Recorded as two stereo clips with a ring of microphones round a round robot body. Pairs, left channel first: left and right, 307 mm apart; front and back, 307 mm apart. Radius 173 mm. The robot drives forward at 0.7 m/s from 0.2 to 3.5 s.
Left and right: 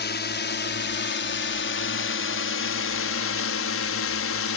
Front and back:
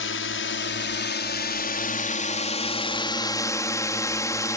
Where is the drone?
40° left; by 4.6 s 75° left.